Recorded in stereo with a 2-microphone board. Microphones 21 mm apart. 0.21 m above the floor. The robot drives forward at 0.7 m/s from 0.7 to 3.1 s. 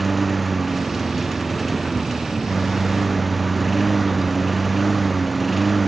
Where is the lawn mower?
5° right (ahead or behind).